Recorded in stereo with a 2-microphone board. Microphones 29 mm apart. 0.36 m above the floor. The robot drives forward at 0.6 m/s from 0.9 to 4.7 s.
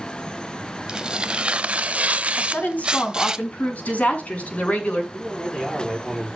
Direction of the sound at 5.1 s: 15° left (ahead or behind).